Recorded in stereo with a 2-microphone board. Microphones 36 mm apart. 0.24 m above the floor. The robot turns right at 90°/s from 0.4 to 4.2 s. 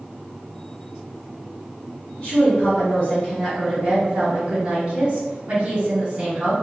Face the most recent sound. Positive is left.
turn(degrees=-125)